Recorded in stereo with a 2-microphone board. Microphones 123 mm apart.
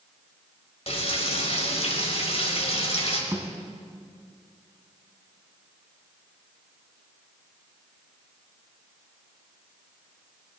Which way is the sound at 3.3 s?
25° right (ahead or behind).